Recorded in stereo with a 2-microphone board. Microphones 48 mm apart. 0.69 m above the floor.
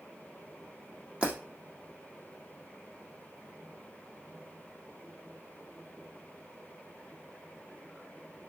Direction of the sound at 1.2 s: 25° right (ahead or behind).